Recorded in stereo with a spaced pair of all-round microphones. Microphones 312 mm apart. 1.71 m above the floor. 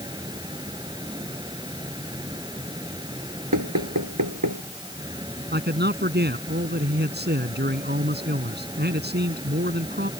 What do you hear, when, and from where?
0.0 s a fan: 15° right (ahead or behind)
3.5 s knocking: 75° right (ahead or behind)
5.5 s a man speaking: 30° right (ahead or behind)